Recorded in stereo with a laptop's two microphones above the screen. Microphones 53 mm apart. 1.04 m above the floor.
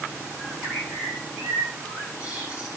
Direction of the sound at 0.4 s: 20° right (ahead or behind).